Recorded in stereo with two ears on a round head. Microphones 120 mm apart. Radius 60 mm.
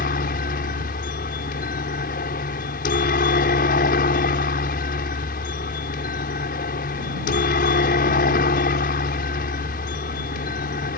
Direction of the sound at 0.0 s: 70° left (ahead or behind).